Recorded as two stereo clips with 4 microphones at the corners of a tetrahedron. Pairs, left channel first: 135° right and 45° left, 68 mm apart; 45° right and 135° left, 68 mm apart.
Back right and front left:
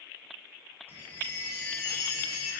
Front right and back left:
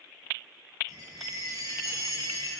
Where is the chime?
105° left, 7.5 m.